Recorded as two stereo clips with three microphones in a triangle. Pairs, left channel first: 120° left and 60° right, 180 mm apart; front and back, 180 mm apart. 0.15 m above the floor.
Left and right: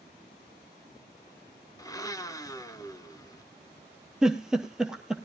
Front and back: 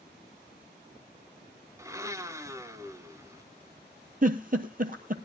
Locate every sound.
1.8 s a blender: 145° left, 0.6 m
4.2 s a giggle: 145° right, 0.9 m